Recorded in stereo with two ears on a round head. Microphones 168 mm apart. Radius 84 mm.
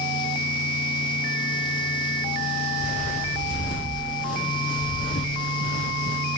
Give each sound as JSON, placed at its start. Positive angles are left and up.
{"t": 2.8, "sound": "footsteps", "side_deg": 40, "distance_m": 5.5}